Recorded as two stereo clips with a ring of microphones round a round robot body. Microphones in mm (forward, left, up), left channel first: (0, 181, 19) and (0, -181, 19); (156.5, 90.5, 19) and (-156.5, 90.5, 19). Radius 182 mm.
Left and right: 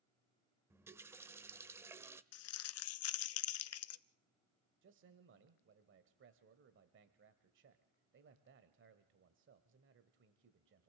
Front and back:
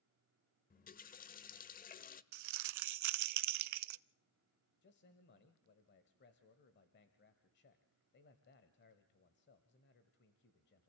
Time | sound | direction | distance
0.7 | a running tap | 15° right | 0.7 m
2.3 | crumpling | 145° left | 0.6 m
4.8 | a man speaking | 45° right | 1.2 m